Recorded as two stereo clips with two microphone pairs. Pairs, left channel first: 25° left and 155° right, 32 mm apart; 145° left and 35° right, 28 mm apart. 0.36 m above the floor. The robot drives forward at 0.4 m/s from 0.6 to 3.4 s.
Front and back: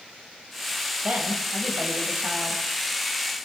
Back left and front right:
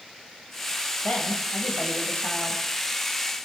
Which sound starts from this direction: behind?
A woman speaking, at 1.0 s.